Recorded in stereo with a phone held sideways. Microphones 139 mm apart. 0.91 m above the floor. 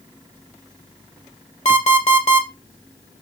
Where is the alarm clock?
55° left (ahead or behind), 1.6 m.